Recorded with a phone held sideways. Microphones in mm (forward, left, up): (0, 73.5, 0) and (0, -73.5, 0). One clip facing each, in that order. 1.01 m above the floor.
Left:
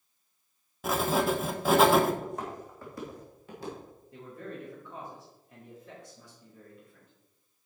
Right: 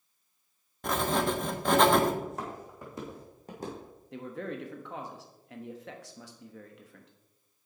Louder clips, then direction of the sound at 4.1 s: Right 5 dB; 80° right.